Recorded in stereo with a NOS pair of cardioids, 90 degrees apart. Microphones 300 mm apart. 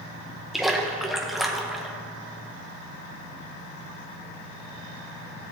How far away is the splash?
About 1.4 m.